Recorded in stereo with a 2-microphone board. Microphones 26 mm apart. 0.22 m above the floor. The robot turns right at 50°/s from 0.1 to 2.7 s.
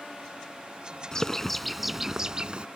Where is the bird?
150° left; by 2.7 s 130° right.